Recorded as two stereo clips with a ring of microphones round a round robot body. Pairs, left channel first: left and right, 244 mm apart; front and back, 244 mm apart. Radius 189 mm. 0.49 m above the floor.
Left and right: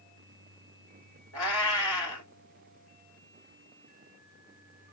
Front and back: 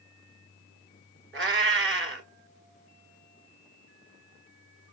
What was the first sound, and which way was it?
A cat meowing, 140° left.